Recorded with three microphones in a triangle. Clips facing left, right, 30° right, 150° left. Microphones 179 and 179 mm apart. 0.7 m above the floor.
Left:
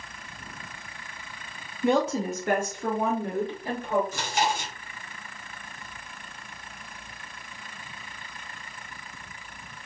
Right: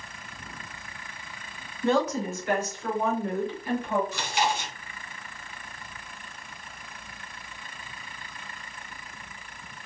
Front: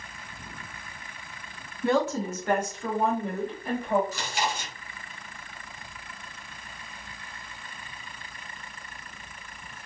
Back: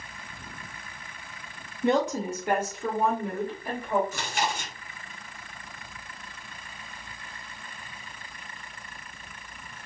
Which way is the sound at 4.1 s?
120° left.